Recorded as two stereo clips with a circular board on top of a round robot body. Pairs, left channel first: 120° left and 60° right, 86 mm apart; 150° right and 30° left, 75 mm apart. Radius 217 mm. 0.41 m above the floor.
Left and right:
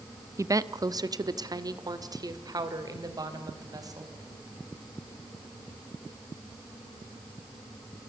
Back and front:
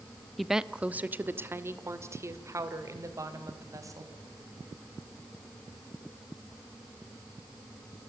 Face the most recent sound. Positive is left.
turn(degrees=-15)